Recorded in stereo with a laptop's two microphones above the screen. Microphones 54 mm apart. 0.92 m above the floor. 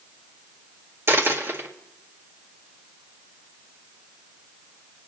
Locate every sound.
1.1 s a dropped coin: 55° right (ahead or behind), 1.9 m